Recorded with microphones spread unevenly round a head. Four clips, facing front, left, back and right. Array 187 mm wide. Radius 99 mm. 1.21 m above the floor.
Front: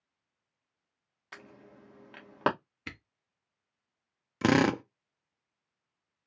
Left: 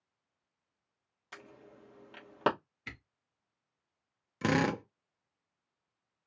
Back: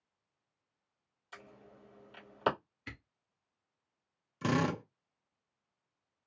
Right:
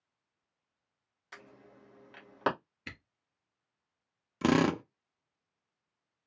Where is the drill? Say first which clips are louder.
Right 3 dB, front 7 dB; 25° right, 0.6 m.